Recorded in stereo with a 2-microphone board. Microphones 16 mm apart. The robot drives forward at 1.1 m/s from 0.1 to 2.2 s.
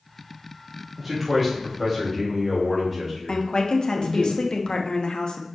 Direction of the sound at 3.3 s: 65° left (ahead or behind).